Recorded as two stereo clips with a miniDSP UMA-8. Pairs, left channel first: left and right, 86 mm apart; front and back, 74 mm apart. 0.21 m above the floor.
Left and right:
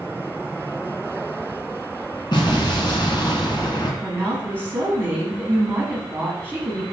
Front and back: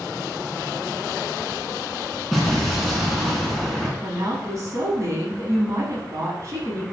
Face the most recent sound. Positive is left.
turn(degrees=-150)